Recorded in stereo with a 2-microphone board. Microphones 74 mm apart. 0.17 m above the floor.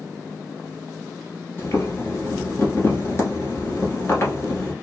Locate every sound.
1.6 s boiling: 35° left (ahead or behind), 1.3 m